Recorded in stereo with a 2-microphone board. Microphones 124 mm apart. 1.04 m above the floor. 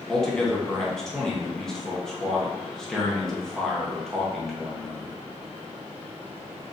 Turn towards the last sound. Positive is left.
turn(degrees=5)  # may be behind; listen again after turning